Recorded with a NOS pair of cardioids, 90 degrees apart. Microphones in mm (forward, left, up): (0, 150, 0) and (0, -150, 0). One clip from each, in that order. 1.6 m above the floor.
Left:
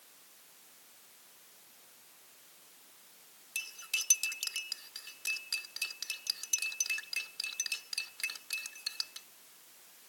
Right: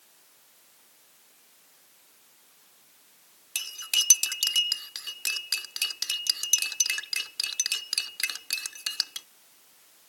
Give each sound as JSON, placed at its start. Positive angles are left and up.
{"t": 3.5, "sound": "cutlery clinking", "azimuth_deg": -65}